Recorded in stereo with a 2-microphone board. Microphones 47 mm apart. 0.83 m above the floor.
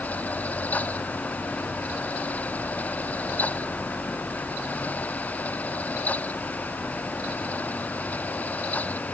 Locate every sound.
Only background noise.